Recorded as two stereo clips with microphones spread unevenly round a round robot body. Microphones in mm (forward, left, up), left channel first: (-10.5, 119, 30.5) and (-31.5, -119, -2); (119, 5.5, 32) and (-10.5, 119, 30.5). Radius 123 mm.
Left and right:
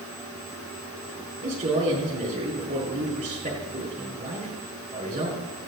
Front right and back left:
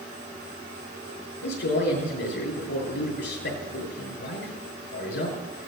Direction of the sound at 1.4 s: 35° right.